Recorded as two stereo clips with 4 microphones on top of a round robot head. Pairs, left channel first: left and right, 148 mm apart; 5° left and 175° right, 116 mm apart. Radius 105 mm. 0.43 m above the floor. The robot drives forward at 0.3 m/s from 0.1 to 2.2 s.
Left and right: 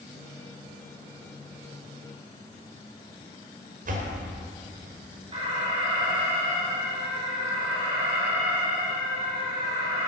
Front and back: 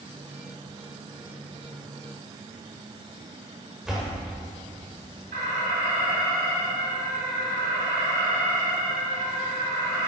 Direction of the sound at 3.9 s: 85° right.